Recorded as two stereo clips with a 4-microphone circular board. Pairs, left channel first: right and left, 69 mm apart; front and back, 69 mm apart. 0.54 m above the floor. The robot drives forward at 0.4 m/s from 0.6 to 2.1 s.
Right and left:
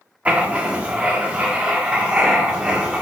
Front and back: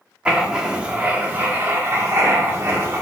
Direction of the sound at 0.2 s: 125° left.